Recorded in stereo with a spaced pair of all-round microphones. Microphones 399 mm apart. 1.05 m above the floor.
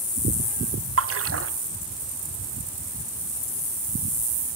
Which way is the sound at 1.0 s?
35° right (ahead or behind).